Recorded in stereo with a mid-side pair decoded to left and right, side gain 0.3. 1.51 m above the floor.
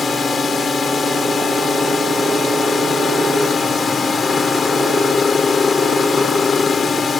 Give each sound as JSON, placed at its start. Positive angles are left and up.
{"t": 0.0, "sound": "a drone", "azimuth_deg": 55}